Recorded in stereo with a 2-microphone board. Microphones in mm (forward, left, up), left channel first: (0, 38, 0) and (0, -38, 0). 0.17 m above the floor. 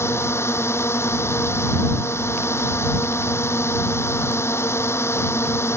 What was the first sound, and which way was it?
A drone, 35° left (ahead or behind).